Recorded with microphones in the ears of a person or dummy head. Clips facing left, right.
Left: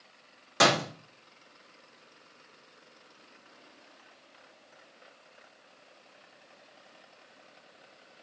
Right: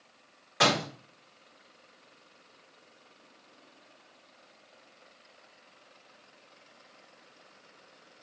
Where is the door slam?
55° left (ahead or behind), 2.5 m.